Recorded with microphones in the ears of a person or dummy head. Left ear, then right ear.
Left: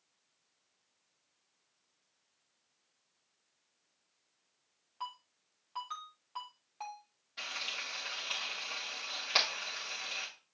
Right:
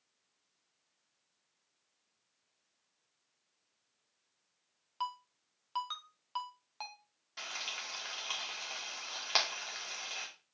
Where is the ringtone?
50° right (ahead or behind), 1.1 m.